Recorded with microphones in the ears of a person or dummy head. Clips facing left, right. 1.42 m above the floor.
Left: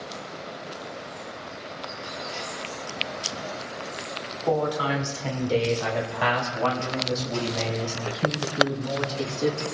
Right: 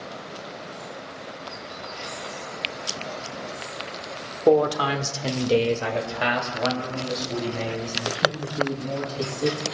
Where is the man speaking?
80° right, 1.5 m; by 9.6 s 10° right (ahead or behind), 7 m.